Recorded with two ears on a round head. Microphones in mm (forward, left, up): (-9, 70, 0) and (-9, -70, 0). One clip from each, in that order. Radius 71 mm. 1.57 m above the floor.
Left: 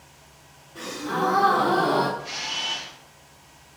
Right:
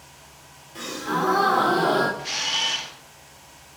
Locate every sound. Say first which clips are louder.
0.8 s a gasp: right 1 dB; 65° right (ahead or behind), 2.5 m
2.2 s a camera shutter: right 5 dB; 65° right (ahead or behind), 0.9 m